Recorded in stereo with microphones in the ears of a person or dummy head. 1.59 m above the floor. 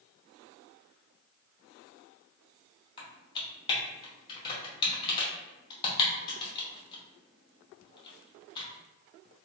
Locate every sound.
3.0 s typing on a keyboard: 20° left (ahead or behind), 0.7 m